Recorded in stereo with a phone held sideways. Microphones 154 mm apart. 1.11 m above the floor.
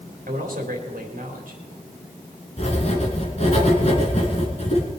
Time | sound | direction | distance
0.3 | a man speaking | 65° right (ahead or behind) | 3.5 m
2.6 | writing | 45° left (ahead or behind) | 4 m